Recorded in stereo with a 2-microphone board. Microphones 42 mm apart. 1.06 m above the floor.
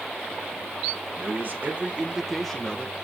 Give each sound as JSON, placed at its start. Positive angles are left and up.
{"t": 1.2, "sound": "a man speaking", "side_deg": -55, "distance_m": 1.5}